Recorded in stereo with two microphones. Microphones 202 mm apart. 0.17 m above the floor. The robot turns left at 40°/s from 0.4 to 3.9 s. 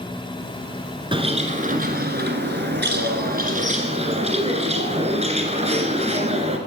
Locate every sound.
1.1 s a bird: 30° right, 1.4 m; by 6.6 s 140° right, 1.4 m